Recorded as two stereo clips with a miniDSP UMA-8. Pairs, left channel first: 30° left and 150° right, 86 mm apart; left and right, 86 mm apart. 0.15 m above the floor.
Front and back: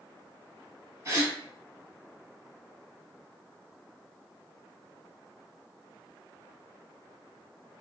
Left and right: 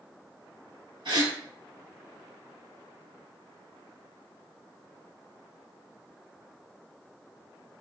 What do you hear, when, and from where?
1.1 s a gasp: 100° right, 1.0 m